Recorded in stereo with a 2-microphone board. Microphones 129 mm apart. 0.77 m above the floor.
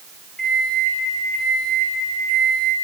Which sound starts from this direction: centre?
A microwave, at 0.4 s.